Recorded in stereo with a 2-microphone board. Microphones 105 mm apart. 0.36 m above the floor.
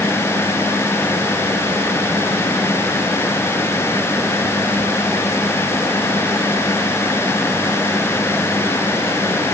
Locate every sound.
Only background noise.